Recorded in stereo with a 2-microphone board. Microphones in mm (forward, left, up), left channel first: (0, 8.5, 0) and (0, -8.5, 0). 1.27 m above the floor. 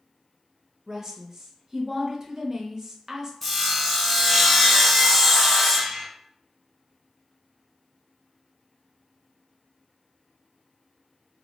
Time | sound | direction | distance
0.9 | a woman speaking | 25° right (ahead or behind) | 0.6 m
3.4 | sawing | 10° left (ahead or behind) | 0.6 m